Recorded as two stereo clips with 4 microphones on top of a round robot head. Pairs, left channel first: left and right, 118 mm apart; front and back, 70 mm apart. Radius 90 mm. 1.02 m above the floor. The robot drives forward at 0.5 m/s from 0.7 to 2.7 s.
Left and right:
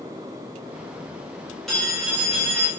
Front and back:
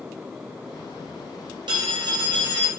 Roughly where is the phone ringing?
Behind.